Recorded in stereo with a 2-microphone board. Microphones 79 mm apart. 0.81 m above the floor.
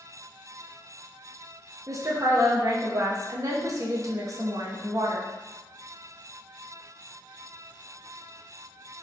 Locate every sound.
1.9 s a woman speaking: 45° right (ahead or behind), 0.5 m